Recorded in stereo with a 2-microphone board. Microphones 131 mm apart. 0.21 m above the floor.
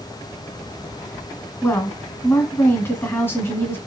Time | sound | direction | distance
1.6 | a woman speaking | 20° left (ahead or behind) | 1.3 m